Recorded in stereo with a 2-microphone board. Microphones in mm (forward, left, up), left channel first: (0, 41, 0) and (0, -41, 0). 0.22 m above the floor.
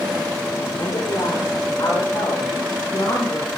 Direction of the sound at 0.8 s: 45° left (ahead or behind).